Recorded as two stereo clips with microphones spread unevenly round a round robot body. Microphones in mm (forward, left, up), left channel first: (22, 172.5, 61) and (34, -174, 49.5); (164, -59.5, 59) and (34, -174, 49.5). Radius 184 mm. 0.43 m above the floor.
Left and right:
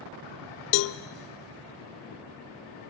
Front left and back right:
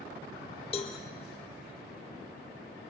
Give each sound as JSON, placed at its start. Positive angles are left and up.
{"t": 0.7, "sound": "a cowbell", "azimuth_deg": 105, "distance_m": 0.9}